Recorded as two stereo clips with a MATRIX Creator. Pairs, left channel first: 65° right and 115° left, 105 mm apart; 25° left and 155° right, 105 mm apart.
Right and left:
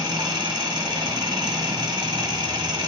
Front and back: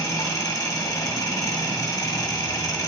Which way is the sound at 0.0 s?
75° left.